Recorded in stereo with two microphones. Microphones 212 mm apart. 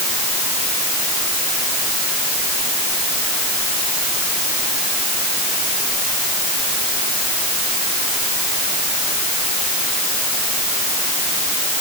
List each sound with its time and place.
Only background noise.